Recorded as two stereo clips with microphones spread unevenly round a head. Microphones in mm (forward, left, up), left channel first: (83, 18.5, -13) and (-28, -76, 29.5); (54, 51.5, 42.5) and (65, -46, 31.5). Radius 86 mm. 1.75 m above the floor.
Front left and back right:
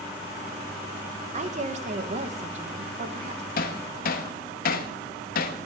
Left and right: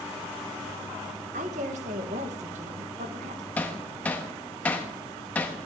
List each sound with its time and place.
1.3 s a woman speaking: 110° right, 1.5 m
3.6 s hammering: 35° left, 1.3 m